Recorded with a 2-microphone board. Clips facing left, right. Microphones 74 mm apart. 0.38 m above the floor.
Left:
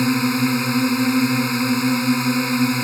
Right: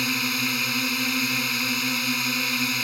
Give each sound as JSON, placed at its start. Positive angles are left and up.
{"t": 0.0, "sound": "a drone", "side_deg": 25}